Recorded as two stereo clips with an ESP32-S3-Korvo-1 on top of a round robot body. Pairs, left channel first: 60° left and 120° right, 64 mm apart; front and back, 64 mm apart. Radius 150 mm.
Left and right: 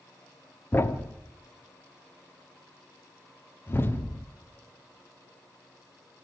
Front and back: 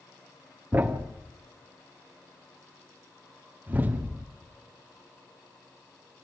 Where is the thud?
115° left, 1.1 m.